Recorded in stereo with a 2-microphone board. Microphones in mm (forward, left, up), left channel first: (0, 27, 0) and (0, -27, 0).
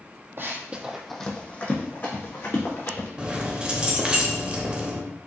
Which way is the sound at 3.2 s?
20° right (ahead or behind).